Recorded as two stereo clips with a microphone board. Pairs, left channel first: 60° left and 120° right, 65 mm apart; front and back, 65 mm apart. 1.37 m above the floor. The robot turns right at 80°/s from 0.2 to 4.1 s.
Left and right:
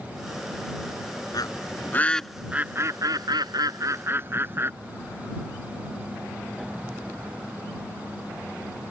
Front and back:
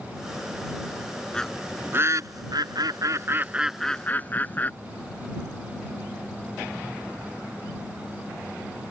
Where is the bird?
75° left; by 4.7 s 65° right.